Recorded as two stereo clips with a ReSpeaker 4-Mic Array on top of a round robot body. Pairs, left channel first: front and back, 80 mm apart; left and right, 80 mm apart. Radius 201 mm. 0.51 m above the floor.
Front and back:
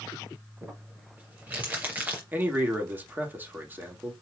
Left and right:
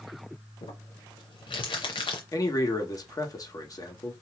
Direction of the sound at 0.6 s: 110° left.